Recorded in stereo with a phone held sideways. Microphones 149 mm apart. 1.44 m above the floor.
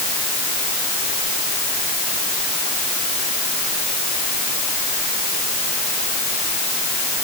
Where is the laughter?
No laughter in this recording.